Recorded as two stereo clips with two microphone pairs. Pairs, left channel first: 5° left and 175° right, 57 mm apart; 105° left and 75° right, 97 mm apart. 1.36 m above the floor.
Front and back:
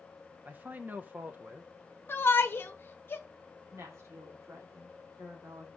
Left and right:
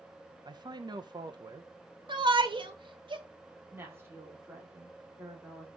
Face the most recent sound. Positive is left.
turn(degrees=-140)